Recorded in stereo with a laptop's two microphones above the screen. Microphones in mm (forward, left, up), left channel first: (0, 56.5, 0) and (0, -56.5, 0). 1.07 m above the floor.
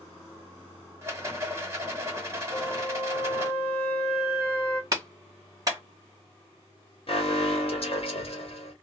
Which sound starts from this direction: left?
An alarm, at 7.1 s.